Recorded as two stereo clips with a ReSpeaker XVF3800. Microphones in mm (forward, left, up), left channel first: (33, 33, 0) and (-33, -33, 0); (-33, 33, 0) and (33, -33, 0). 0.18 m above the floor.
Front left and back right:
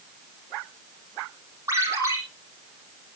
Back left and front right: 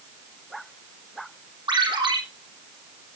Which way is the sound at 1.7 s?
75° right.